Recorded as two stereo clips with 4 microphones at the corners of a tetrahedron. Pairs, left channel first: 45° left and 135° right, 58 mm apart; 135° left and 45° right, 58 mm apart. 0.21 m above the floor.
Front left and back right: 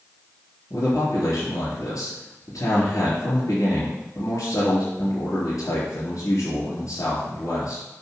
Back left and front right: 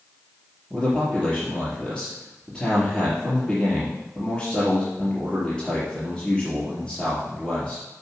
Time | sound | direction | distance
0.7 | a man speaking | 55° left | 3.5 m